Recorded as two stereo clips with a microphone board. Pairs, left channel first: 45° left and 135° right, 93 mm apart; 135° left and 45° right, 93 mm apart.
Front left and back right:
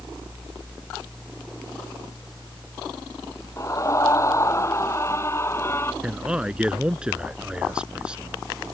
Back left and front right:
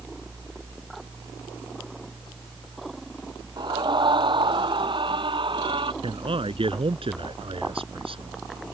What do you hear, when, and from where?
3.6 s a scream: 10° right; by 5.9 s 15° right
6.0 s a man speaking: 55° right